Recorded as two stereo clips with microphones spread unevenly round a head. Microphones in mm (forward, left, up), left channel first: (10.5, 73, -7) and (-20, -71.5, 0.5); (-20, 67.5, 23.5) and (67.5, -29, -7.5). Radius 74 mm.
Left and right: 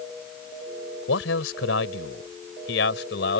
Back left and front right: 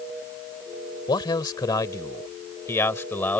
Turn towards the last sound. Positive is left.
turn(degrees=55)